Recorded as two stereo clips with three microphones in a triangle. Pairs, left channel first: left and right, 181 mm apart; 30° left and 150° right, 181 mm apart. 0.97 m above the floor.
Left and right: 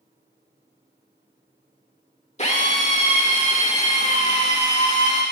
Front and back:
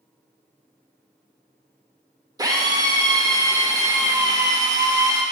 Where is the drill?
140° left, 1.5 m.